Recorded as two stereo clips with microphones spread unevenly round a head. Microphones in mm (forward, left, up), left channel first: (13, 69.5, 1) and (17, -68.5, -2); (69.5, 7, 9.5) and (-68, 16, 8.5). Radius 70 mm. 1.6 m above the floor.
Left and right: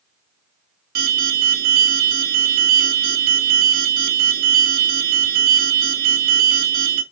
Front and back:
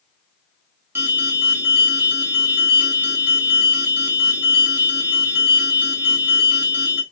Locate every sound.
0.9 s an alarm: 110° right, 2 m